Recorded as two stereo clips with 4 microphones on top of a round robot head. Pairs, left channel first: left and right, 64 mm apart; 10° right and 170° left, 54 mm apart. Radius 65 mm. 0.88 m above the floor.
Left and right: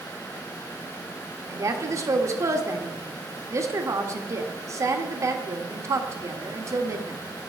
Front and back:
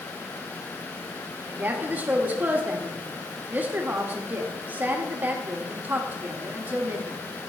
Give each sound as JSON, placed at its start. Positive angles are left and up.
{"t": 1.5, "sound": "a woman speaking", "azimuth_deg": -130, "distance_m": 1.6}